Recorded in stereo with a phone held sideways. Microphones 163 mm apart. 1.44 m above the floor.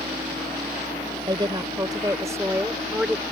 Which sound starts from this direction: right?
A woman speaking, at 1.3 s.